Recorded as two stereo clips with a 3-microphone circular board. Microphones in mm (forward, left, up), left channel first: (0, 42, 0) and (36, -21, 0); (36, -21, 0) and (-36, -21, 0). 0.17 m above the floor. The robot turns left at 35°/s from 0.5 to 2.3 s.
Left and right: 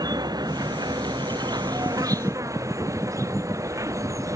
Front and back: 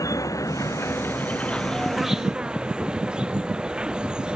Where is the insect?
40° right; by 4.4 s 100° right.